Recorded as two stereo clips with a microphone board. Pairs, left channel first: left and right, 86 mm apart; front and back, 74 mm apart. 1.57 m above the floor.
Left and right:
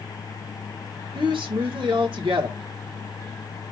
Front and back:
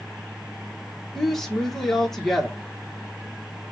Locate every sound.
1.1 s a woman speaking: 85° right, 1.9 m